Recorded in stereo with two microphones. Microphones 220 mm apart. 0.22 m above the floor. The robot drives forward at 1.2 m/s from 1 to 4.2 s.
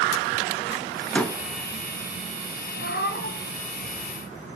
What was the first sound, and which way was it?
A door slam, 5° left (ahead or behind).